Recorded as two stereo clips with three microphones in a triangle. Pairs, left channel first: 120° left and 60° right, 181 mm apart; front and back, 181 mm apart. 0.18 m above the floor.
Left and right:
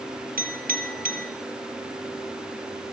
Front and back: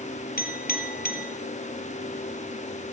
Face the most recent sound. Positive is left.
turn(degrees=-25)